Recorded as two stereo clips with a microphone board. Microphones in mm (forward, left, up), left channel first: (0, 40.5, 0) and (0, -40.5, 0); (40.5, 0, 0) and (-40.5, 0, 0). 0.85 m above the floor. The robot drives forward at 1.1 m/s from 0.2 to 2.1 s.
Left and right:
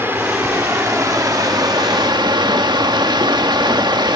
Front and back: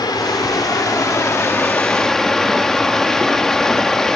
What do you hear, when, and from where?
0.0 s running water: 30° right, 2.5 m; by 4.2 s 80° right, 1.5 m